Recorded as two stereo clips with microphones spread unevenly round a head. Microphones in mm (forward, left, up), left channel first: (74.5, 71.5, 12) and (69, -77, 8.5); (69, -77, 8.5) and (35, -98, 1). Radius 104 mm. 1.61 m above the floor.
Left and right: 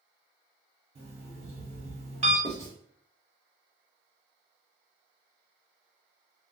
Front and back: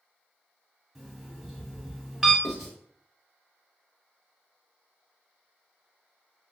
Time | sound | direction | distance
0.9 | an alarm clock | 55° right | 1.6 m
2.4 | writing | 40° right | 1.2 m